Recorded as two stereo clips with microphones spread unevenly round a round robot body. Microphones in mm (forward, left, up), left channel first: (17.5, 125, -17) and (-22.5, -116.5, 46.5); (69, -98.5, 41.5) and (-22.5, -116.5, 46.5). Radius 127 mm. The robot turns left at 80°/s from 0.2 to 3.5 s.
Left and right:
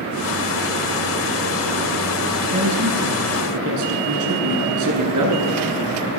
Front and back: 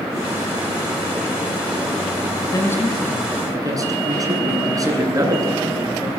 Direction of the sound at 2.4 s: 30° right.